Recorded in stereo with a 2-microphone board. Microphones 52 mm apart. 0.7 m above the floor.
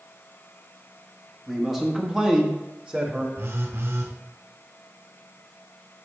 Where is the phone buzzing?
70° right (ahead or behind), 2.0 m.